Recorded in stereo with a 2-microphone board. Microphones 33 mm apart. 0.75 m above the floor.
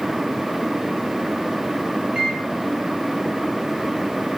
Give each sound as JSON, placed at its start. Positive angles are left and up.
{"t": 2.1, "sound": "a microwave", "side_deg": -30, "distance_m": 1.8}